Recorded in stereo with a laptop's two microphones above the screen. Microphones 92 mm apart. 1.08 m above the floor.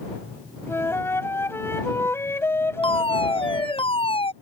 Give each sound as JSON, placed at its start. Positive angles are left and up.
{"t": 0.7, "sound": "a flute", "side_deg": 25}
{"t": 2.8, "sound": "a fire alarm", "side_deg": 80}